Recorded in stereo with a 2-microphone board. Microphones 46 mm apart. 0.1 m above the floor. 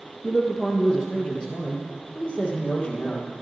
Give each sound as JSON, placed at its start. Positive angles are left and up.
{"t": 0.2, "sound": "a man speaking", "side_deg": 10, "distance_m": 2.0}